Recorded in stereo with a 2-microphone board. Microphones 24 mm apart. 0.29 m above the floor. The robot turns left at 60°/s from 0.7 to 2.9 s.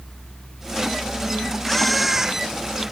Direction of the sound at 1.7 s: 15° left (ahead or behind).